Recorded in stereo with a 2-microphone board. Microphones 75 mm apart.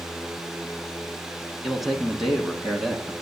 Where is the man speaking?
Centre (ahead or behind), 1.5 m.